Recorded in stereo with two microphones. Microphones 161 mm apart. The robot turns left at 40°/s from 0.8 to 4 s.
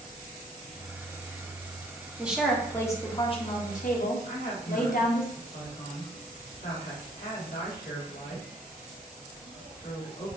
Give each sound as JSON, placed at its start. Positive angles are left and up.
{"t": 2.2, "sound": "a woman speaking", "azimuth_deg": -170, "distance_m": 0.8}
{"t": 4.2, "sound": "a woman speaking", "side_deg": 70, "distance_m": 1.4}